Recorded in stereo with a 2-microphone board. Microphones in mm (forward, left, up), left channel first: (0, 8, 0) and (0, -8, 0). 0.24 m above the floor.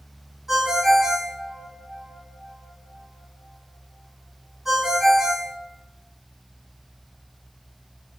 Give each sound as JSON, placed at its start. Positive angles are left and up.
{"t": 0.5, "sound": "a ringtone", "side_deg": -35, "distance_m": 1.3}